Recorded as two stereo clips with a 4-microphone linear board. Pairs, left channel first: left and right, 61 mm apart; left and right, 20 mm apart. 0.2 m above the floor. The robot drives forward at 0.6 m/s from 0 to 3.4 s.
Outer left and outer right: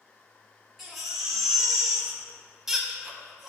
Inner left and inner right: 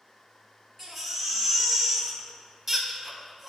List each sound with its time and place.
0.8 s a baby crying: 5° right (ahead or behind), 1.2 m